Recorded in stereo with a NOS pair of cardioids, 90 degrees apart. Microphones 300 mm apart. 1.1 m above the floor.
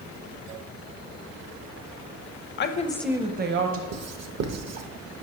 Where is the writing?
65° right, 0.7 m.